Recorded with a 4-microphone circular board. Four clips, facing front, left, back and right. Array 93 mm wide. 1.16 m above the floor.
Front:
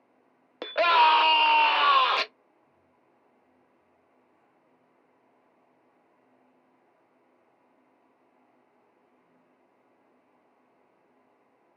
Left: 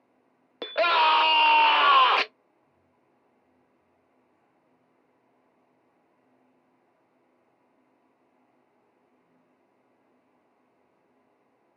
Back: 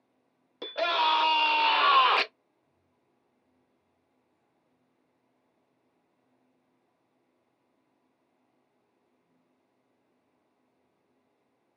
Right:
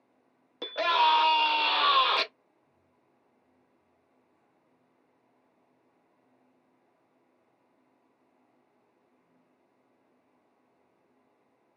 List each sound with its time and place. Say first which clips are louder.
0.6 s a scream: left 3 dB, front 7 dB; 35° left, 1.0 m; by 2.2 s 115° left, 0.7 m